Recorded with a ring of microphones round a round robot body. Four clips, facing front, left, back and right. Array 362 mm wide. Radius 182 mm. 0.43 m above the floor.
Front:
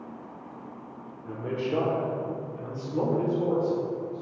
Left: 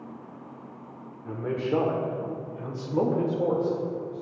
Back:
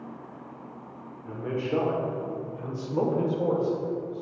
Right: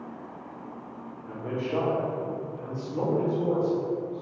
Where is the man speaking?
95° left, 1.6 m; by 4.2 s 135° left, 2.5 m.